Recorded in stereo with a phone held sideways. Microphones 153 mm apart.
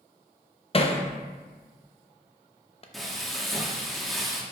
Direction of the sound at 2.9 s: Centre (ahead or behind).